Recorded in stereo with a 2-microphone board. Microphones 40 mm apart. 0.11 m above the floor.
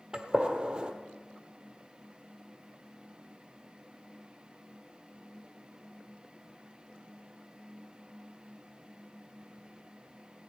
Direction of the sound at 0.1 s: 25° right (ahead or behind).